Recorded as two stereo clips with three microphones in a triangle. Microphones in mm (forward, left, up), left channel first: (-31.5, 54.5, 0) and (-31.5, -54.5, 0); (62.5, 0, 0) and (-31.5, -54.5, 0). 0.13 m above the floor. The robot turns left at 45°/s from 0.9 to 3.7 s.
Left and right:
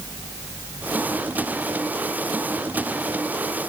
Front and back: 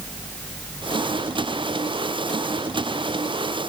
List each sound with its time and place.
Only background noise.